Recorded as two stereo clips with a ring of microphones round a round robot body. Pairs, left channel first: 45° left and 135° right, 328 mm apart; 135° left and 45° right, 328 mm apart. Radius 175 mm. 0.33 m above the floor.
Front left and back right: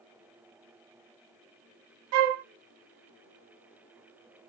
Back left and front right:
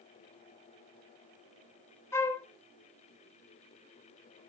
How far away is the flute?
About 0.6 m.